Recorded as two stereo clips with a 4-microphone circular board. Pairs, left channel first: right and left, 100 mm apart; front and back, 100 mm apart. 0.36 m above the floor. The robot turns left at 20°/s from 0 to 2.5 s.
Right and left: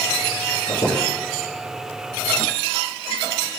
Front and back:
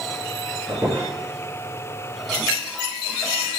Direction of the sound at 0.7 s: 115° right.